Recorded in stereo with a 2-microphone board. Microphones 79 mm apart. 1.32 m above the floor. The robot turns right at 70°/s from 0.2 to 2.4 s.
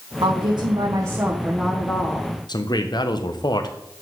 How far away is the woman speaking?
About 1.4 m.